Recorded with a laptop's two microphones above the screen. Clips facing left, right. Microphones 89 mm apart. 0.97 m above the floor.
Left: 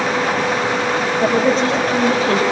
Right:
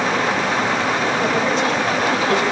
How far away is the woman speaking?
About 6.5 m.